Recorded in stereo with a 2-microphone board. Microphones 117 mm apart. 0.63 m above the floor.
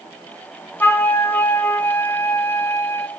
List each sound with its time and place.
0.8 s a flute: 20° left (ahead or behind), 1.0 m